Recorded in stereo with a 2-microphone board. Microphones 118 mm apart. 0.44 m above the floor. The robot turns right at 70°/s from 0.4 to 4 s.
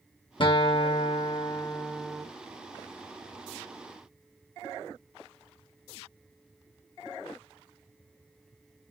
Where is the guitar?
60° left, 0.5 m; by 2.3 s 170° right, 0.5 m.